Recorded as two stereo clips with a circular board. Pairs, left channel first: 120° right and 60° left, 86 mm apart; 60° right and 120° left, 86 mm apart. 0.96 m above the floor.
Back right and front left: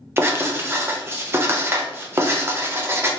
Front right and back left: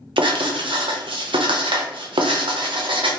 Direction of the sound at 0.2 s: 120° left.